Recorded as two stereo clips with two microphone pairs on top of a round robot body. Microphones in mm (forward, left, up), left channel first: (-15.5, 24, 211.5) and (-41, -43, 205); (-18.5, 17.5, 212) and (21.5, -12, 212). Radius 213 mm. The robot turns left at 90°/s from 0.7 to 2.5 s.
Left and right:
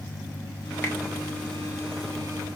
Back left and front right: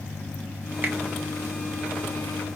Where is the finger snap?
15° left, 2.5 m; by 1.0 s straight ahead, 2.5 m.